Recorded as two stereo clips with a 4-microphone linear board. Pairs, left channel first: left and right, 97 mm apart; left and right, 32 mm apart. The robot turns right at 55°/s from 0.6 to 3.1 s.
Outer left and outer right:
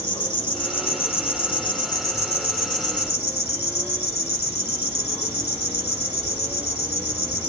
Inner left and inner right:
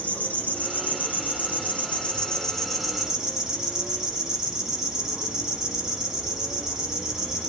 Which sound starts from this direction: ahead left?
An insect, at 0.0 s.